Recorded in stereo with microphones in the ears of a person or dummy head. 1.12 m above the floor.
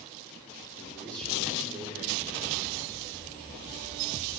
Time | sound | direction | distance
0.8 | a man speaking | 15° left (ahead or behind) | 2.5 m